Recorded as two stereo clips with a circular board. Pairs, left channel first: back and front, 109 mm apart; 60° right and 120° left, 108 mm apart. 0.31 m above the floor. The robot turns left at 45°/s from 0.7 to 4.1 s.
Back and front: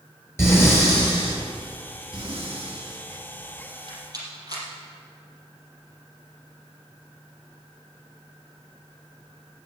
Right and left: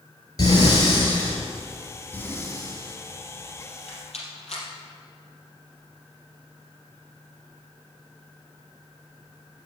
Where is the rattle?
35° right, 4 m; by 4.7 s 50° right, 4 m.